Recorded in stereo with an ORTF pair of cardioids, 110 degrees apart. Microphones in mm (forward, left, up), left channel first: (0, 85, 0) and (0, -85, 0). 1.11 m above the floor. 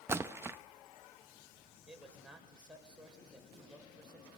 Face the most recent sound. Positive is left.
turn(degrees=-5)